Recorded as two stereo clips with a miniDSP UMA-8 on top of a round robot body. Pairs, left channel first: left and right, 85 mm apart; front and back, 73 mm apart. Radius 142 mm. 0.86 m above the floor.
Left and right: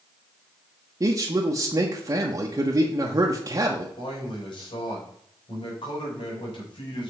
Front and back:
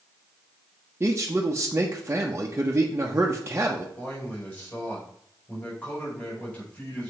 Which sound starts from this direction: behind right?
A man speaking, at 1.0 s.